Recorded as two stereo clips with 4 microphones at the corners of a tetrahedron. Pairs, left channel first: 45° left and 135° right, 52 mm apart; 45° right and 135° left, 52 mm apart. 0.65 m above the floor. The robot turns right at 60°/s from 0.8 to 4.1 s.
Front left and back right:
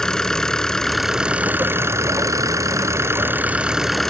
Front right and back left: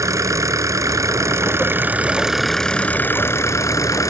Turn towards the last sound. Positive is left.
turn(degrees=-35)